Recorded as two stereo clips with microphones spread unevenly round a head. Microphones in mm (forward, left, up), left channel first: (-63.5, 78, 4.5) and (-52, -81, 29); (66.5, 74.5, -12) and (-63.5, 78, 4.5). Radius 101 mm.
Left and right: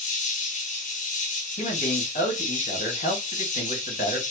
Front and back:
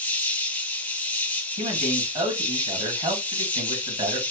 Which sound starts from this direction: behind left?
A man speaking, at 1.6 s.